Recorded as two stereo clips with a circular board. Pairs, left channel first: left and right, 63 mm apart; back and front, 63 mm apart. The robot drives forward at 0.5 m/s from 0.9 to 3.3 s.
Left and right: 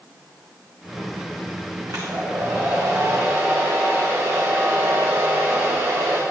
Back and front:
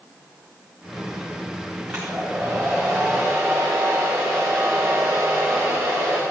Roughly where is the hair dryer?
Right.